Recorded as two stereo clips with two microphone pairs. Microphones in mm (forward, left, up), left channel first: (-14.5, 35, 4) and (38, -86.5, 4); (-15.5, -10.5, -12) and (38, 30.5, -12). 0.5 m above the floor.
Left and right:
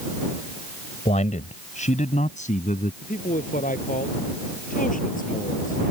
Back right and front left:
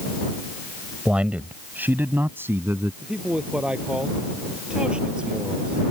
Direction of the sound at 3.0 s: 115° left.